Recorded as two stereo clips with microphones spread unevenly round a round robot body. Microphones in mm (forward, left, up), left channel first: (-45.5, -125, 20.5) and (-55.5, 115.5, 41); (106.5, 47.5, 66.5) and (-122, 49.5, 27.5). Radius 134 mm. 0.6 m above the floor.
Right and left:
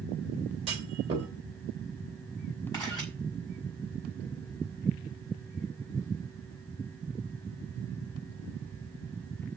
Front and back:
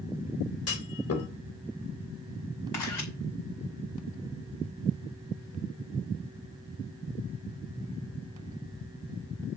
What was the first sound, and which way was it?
A clunk, 20° left.